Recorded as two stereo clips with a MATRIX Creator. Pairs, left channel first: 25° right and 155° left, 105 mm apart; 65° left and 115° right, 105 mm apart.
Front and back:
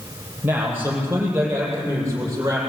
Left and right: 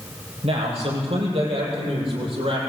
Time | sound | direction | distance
0.4 | a man speaking | 130° right | 8.5 m